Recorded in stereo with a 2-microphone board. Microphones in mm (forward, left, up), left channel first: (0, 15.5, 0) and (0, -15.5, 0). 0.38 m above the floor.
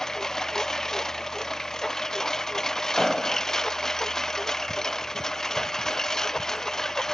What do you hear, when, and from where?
0.0 s a lawn mower: 15° left (ahead or behind)
3.0 s an explosion: 5° right (ahead or behind)